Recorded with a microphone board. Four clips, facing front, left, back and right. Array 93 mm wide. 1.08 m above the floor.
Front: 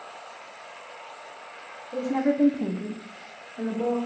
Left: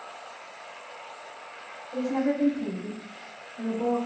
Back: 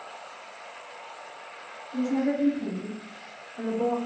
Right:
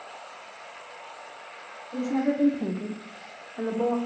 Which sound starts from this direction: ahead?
A woman speaking, at 1.9 s.